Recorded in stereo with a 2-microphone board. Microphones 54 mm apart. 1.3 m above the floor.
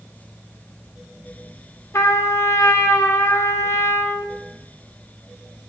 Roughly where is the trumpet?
Left.